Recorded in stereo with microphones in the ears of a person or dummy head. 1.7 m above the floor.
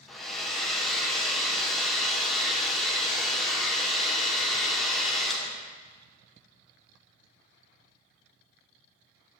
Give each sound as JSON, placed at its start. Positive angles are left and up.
{"t": 0.1, "sound": "a hair dryer", "side_deg": 5, "distance_m": 1.1}